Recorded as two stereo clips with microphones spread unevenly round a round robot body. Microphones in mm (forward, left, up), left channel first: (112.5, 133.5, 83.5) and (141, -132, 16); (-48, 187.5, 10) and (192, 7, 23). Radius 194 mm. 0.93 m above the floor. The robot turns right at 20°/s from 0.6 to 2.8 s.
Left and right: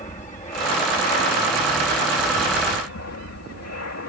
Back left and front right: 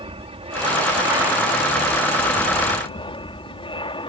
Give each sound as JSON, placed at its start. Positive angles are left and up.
{"t": 0.0, "sound": "an aircraft", "azimuth_deg": 30}